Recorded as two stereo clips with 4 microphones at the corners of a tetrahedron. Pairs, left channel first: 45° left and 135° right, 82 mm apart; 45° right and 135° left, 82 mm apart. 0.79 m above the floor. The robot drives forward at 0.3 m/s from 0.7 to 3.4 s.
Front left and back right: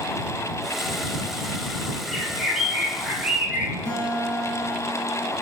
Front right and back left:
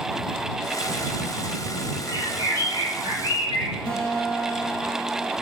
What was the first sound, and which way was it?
A bird, 135° left.